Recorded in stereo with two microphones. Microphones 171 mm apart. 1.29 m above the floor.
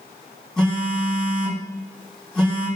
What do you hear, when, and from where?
0.6 s a phone buzzing: 5° left (ahead or behind), 3 m